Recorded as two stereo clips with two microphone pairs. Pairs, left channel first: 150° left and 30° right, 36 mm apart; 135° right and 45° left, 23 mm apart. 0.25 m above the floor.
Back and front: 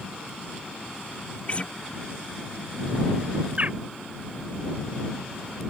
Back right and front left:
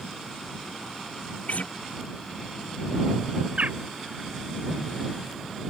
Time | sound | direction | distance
1.5 | a guitar | 155° right | ?
3.6 | a bird | 20° left | ?